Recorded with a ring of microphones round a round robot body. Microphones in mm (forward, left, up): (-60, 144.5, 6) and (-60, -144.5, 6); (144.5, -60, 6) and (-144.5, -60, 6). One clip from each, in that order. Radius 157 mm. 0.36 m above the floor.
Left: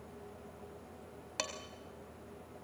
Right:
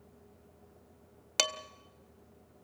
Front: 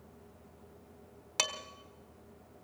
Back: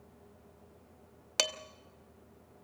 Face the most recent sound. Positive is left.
turn(degrees=-120)